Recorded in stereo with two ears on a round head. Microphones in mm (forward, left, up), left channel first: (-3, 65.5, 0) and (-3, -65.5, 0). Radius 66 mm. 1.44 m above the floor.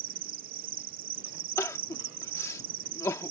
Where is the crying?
20° left (ahead or behind).